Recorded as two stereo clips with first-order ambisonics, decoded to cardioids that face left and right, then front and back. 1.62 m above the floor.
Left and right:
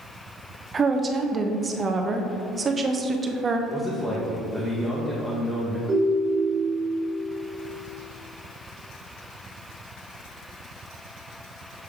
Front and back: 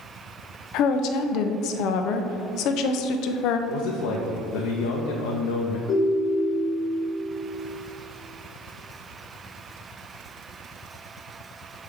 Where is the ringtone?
25° right, 1.5 m.